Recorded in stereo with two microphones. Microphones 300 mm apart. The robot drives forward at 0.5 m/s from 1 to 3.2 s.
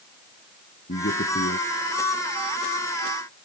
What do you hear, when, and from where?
0.9 s a man speaking: 35° left (ahead or behind); by 1.6 s 40° left (ahead or behind)